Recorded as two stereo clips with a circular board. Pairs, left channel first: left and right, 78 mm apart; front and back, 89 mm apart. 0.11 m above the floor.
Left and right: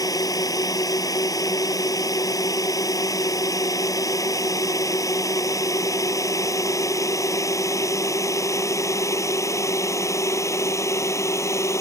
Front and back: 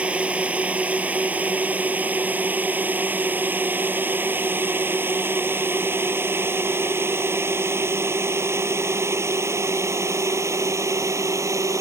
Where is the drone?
105° left; by 11.8 s 130° left.